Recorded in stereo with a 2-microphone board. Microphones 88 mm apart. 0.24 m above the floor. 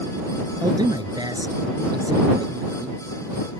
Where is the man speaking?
55° right (ahead or behind).